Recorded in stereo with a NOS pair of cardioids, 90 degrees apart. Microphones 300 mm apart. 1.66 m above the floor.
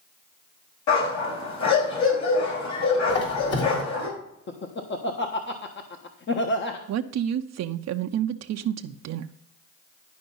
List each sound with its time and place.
0.9 s a dog barking: 70° left, 5 m
3.1 s a squeak: 55° left, 3 m
4.5 s laughter: 40° left, 1.3 m
6.9 s a woman speaking: 60° right, 0.7 m